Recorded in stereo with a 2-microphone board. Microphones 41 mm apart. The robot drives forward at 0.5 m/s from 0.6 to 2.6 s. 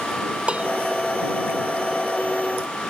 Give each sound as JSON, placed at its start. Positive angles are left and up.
{"t": 0.5, "sound": "dishes clattering", "side_deg": -30}